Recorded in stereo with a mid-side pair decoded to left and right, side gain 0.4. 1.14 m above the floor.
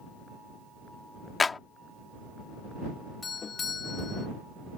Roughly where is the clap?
Ahead left.